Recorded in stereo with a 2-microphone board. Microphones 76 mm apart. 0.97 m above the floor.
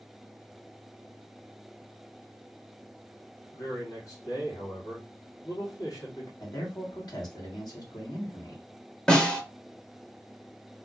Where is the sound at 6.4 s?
60° left (ahead or behind), 1.7 m.